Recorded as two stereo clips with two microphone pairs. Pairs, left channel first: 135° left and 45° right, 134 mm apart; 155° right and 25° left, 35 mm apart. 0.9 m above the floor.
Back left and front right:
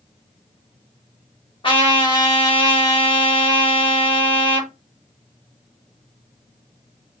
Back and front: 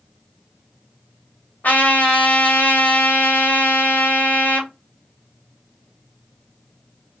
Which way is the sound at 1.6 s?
Straight behind.